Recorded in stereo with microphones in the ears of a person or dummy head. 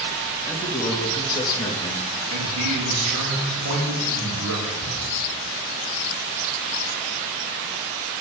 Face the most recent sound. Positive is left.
turn(degrees=-30)  # may be behind; listen again after turning